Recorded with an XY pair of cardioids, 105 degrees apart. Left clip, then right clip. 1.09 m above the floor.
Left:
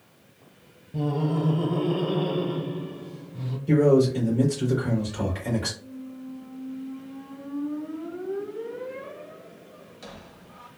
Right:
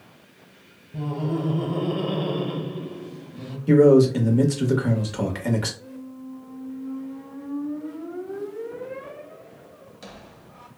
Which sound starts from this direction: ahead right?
A man speaking, at 3.7 s.